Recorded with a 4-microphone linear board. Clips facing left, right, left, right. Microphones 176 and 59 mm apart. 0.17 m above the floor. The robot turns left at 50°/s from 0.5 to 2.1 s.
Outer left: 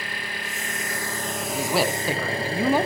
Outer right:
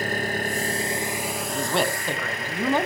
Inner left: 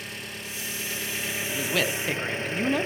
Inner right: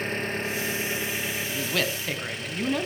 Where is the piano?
No piano in this recording.